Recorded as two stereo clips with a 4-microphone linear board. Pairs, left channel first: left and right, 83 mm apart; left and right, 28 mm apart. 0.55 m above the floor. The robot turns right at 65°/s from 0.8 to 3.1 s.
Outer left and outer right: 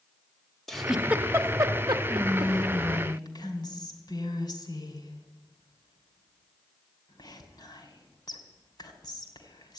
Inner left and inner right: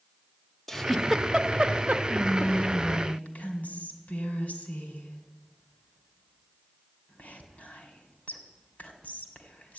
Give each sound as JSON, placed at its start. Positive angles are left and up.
{"t": 0.7, "sound": "a giggle", "side_deg": 5, "distance_m": 0.7}
{"t": 2.1, "sound": "whispering", "side_deg": 25, "distance_m": 3.0}